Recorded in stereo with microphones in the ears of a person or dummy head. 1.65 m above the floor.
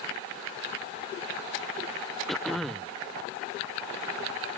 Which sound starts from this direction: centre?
Throat clearing, at 2.3 s.